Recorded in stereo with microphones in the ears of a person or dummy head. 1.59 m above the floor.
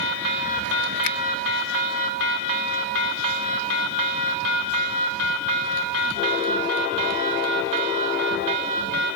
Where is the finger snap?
70° left (ahead or behind).